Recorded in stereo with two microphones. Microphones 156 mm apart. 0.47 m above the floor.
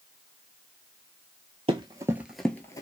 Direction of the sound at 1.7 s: 35° right (ahead or behind).